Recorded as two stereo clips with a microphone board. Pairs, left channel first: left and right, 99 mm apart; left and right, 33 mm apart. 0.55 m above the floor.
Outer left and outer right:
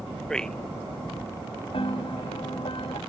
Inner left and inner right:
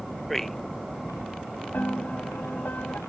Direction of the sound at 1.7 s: 70° left (ahead or behind).